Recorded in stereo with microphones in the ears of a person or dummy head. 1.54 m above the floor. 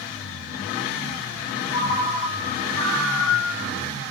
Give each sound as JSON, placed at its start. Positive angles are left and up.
{"t": 1.7, "sound": "a ringtone", "side_deg": 40, "distance_m": 1.6}